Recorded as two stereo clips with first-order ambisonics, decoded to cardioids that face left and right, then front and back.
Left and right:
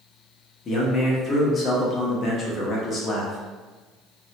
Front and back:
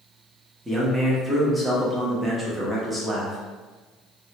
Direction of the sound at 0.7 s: 95° left.